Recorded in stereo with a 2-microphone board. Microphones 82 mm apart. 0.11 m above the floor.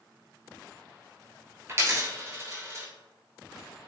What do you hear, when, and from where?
1.7 s a dropped coin: 35° right (ahead or behind), 0.7 m